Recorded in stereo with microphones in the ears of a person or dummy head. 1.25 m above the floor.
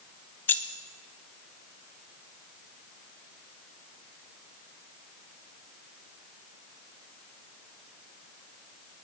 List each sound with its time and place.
0.5 s keys jangling: 15° left (ahead or behind), 0.5 m